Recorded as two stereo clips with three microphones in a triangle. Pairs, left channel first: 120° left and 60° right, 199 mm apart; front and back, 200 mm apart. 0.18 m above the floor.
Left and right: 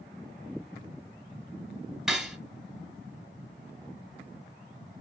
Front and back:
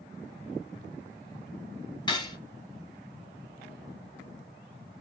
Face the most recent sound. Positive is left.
turn(degrees=25)